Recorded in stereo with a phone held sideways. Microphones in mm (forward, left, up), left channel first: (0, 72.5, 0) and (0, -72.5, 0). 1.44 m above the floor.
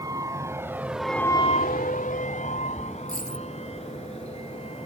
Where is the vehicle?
25° right (ahead or behind); by 4.9 s 45° left (ahead or behind).